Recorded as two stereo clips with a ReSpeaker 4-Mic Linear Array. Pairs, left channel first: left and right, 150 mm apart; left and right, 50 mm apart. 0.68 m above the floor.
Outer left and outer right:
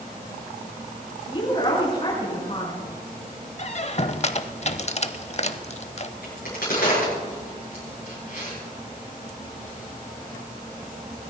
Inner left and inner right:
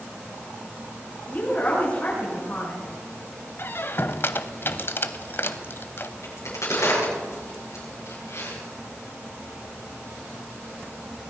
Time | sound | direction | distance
1.3 | a woman speaking | 35° left (ahead or behind) | 7 m
3.6 | a squeak | 45° left (ahead or behind) | 0.6 m
6.2 | a crack | 85° left | 8 m